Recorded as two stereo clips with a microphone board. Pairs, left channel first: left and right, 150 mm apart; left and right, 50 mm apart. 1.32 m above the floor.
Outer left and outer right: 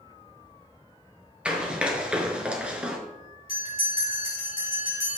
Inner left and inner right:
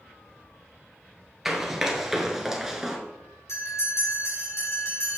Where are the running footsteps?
5° right (ahead or behind), 1.5 m.